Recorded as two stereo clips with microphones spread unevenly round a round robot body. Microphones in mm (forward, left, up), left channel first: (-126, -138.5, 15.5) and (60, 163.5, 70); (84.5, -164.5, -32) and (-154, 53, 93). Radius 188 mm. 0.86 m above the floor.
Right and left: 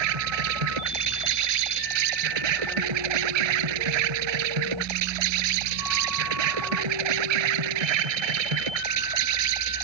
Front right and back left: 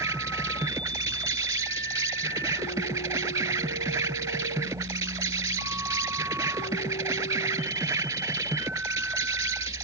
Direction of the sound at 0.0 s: 55° left.